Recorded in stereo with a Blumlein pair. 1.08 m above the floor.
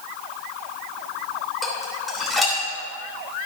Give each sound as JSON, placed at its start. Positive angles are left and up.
{"t": 1.6, "sound": "dishes clattering", "azimuth_deg": -5, "distance_m": 3.0}